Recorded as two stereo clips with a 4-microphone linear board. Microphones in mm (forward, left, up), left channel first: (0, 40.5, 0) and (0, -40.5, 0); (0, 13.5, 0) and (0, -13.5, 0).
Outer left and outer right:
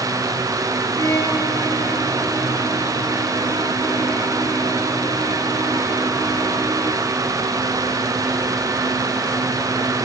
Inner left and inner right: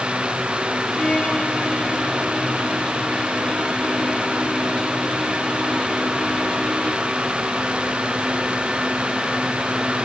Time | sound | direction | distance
1.0 | a violin | 45° left (ahead or behind) | 4 m